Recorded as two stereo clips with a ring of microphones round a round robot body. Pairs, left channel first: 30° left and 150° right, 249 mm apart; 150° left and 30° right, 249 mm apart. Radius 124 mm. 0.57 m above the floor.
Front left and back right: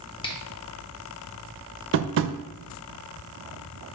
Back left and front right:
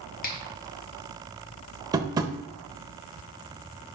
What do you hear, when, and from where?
0.2 s a finger snap: 100° left, 0.9 m
1.9 s tapping: 105° right, 0.6 m